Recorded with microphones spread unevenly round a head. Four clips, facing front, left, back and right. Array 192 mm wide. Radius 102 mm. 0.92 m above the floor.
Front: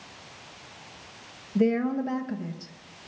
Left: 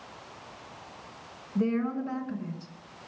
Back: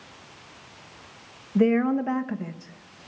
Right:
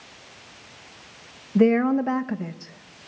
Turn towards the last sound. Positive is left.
turn(degrees=-105)